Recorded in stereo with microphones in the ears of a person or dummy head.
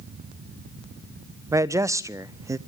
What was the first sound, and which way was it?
A man speaking, 15° right (ahead or behind).